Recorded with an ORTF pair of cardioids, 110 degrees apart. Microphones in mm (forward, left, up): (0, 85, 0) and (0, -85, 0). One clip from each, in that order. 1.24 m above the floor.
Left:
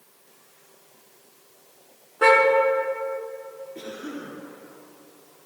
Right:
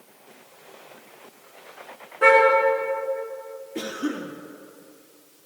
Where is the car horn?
30° left, 5.5 m.